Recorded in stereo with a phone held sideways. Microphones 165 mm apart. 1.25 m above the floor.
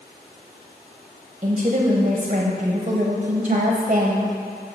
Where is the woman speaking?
40° right (ahead or behind), 0.8 m.